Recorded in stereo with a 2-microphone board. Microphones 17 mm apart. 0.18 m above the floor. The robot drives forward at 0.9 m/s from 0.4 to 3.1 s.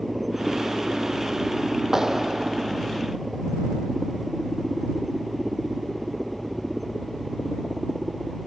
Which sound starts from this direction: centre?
A helicopter, at 0.0 s.